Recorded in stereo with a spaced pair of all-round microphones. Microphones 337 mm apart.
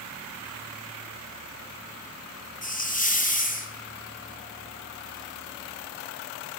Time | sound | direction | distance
2.6 | a hiss | 25° left (ahead or behind) | 0.9 m